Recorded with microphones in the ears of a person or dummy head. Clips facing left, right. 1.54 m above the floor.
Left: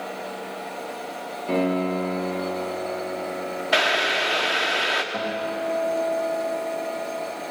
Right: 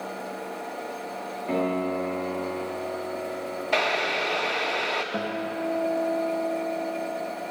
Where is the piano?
Centre (ahead or behind), 3 m.